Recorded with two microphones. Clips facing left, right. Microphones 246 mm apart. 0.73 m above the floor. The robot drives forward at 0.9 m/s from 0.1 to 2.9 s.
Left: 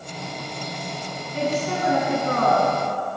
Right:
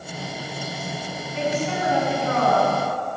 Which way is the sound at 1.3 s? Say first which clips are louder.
Left 1 dB; 45° left (ahead or behind).